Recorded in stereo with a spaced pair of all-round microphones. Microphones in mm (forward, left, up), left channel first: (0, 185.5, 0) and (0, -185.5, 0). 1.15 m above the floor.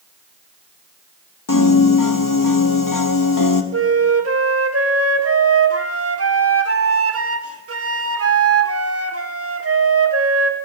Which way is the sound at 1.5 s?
55° left (ahead or behind).